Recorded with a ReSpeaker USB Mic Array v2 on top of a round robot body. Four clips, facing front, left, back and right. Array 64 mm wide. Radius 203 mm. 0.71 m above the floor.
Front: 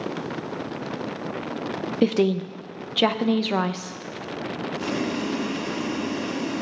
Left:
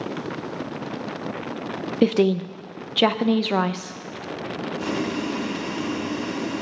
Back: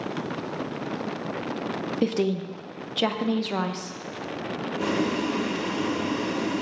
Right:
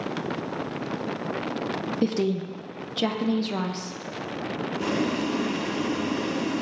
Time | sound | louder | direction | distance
2.0 | a woman speaking | left 7 dB, front 5 dB | 70° left | 0.6 m
4.8 | boiling | right 1 dB, back 2 dB | 175° right | 1.2 m